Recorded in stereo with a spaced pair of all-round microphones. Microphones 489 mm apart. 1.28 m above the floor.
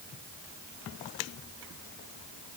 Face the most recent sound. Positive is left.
No sound to turn to.